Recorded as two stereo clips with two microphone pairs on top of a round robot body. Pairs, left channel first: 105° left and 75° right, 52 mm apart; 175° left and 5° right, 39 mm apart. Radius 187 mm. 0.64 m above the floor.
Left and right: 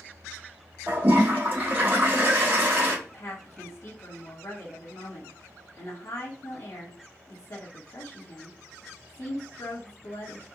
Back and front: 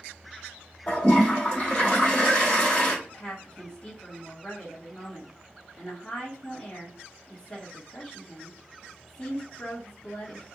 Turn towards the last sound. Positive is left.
turn(degrees=115)